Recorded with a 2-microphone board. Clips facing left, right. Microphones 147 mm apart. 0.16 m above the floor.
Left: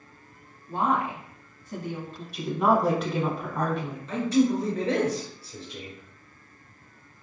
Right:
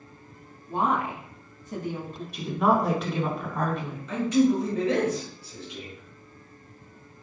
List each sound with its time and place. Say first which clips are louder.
0.7 s a woman speaking: even; 20° right (ahead or behind), 1.0 m
2.3 s a woman speaking: even; centre (ahead or behind), 1.1 m
4.1 s a man speaking: right 1 dB; 35° left (ahead or behind), 1.6 m